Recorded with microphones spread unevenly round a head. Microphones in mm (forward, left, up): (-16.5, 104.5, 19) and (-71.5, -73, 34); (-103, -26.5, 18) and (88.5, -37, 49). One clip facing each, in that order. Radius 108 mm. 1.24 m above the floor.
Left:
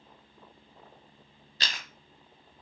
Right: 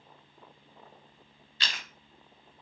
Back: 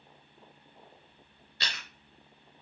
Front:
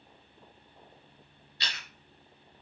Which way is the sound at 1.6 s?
125° left.